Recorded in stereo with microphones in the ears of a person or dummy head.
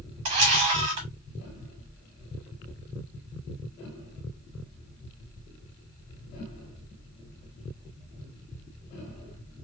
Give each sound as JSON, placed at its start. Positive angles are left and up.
{"t": 0.2, "sound": "a camera shutter", "side_deg": -30, "distance_m": 0.7}